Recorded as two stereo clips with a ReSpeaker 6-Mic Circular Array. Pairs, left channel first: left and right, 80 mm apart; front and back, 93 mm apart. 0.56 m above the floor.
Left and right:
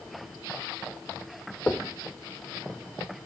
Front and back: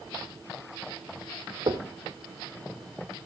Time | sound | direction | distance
1.7 | knocking | 160° left | 0.8 m